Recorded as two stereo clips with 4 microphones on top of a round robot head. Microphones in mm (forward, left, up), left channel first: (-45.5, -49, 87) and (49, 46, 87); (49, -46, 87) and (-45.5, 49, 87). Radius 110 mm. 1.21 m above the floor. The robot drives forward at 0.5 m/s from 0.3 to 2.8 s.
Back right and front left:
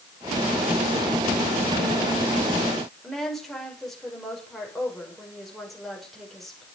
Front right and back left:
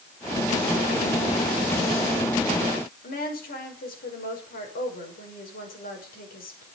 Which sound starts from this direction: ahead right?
A woman speaking, at 3.0 s.